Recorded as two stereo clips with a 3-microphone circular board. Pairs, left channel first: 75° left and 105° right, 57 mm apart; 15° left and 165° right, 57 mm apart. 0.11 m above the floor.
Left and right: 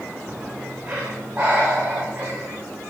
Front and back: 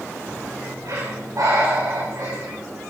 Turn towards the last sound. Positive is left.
turn(degrees=-175)